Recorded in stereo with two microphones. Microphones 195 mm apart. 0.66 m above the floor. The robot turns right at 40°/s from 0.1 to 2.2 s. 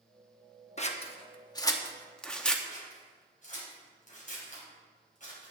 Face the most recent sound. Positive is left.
turn(degrees=40)  # may be behind; listen again after turning